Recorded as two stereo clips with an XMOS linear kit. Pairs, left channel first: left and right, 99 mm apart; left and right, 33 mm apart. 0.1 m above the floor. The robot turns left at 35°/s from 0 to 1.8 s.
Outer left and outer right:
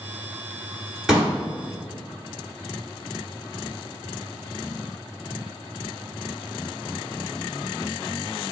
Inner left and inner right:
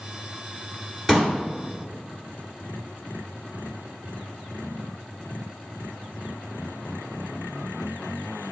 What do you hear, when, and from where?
1.1 s a pop: 5° right (ahead or behind), 1.6 m; by 1.3 s 10° right (ahead or behind), 1.6 m